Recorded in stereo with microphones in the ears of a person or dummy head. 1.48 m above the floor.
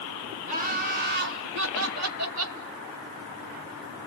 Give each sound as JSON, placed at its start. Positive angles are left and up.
{"t": 0.5, "sound": "laughter", "side_deg": -40, "distance_m": 2.0}